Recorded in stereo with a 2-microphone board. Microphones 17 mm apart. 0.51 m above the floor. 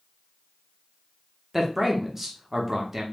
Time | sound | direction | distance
1.5 | a man speaking | 20° right (ahead or behind) | 0.7 m